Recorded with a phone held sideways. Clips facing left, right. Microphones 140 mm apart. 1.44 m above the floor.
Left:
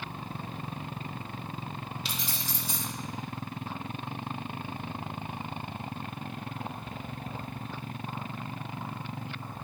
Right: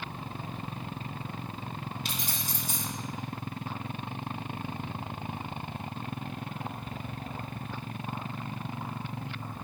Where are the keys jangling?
45° right (ahead or behind), 1.3 m.